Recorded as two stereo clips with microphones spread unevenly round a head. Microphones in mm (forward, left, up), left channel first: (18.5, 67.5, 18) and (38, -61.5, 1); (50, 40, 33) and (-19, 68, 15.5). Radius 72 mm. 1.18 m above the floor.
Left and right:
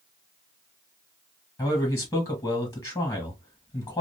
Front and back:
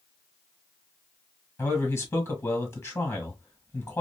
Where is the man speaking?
40° left, 1.5 m.